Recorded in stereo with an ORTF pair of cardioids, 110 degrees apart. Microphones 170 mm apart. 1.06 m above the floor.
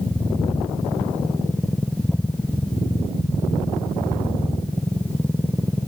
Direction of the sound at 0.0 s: 5° left.